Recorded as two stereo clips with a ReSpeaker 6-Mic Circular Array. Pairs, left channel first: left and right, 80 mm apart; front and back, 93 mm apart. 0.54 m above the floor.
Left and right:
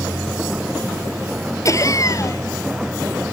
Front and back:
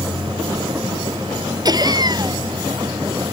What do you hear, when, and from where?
0.0 s a vehicle: 170° right; by 3.3 s 165° right
1.6 s laughter: 135° left